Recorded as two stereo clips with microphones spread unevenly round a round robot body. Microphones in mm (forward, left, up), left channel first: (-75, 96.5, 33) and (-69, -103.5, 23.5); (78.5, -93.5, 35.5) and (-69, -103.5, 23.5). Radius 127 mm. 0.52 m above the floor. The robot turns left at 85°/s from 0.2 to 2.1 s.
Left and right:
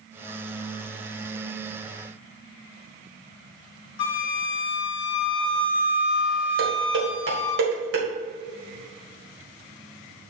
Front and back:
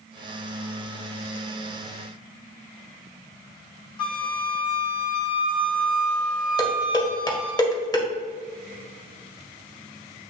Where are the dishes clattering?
60° right, 1.8 m.